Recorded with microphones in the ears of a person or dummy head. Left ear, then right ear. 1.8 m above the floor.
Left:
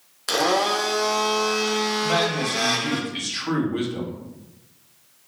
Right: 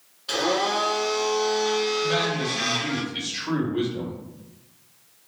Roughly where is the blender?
Left.